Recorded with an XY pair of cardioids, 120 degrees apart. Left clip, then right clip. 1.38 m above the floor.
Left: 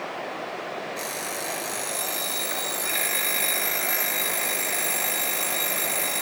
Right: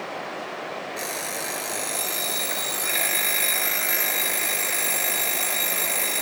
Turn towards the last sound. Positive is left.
turn(degrees=-10)